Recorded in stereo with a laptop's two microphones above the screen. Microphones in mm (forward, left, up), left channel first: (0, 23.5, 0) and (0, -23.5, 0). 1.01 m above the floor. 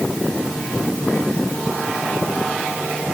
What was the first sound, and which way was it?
Only background noise.